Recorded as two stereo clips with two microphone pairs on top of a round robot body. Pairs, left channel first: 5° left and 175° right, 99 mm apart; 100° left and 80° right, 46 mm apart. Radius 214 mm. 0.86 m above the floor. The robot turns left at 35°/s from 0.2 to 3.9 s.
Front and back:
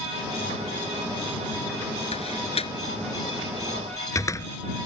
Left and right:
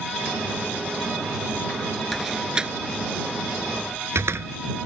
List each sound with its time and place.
2.1 s a door slam: 10° left; by 4.5 s 55° right